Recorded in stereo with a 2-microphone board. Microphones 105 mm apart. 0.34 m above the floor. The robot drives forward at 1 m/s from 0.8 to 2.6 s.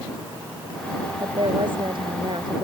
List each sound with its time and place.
1.2 s a woman speaking: 55° right (ahead or behind); by 2.6 s 50° right (ahead or behind)